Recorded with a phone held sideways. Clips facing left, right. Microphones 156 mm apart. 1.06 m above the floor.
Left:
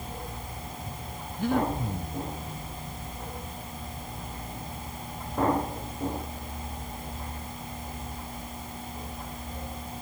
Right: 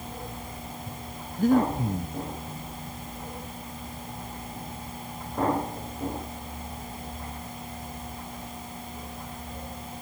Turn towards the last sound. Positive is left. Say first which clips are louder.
# right 5 dB
turn(degrees=-40)  # may be behind; listen again after turning